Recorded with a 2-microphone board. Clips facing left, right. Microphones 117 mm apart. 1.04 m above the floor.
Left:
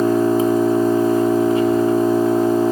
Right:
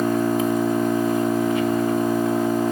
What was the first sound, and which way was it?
An engine running, 35° left (ahead or behind).